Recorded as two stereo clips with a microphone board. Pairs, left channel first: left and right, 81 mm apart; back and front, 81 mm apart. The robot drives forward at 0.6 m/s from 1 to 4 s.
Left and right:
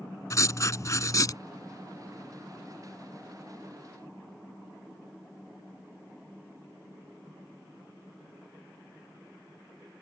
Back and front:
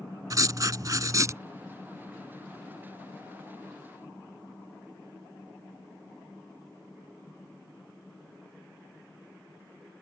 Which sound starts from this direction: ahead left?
Writing, at 0.3 s.